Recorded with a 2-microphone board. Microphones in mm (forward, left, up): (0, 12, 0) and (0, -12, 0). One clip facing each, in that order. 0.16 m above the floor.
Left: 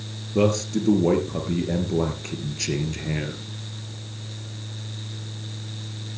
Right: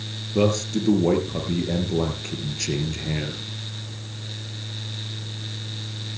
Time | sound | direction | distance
0.3 | a man speaking | centre (ahead or behind) | 2.5 m